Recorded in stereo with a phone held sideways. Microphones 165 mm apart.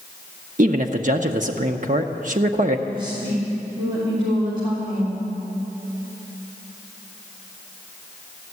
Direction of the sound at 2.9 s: 30° right (ahead or behind).